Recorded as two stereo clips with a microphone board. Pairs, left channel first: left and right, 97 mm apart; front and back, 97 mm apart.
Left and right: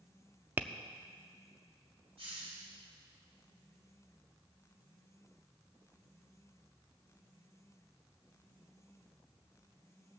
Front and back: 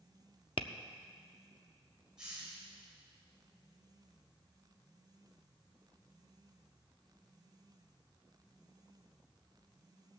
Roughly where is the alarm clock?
No alarm clock in this recording.